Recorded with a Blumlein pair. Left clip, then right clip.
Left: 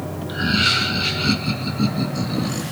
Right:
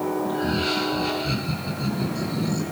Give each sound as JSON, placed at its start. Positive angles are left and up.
{"t": 0.3, "sound": "laughter", "azimuth_deg": 55, "distance_m": 1.7}